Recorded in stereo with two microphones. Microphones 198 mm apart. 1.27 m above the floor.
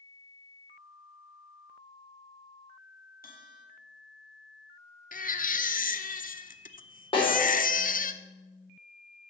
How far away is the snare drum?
About 4 m.